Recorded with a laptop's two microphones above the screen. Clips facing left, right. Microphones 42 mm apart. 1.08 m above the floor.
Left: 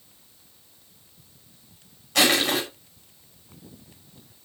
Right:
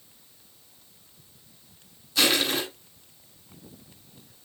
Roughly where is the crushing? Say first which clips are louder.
Left 3 dB; left.